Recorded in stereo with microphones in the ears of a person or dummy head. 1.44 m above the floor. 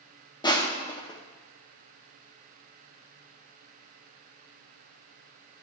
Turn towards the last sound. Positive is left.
turn(degrees=20)  # may be behind; listen again after turning